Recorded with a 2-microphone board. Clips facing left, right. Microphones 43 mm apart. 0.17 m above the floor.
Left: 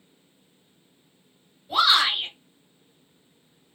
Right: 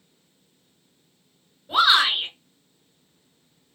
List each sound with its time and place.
1.7 s a shout: 40° right (ahead or behind), 2.5 m